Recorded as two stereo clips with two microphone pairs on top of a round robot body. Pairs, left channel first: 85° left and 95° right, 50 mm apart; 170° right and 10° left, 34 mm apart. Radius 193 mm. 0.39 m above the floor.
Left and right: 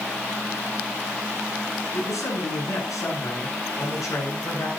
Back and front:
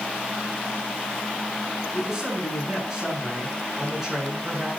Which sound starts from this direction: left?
A man speaking, at 1.9 s.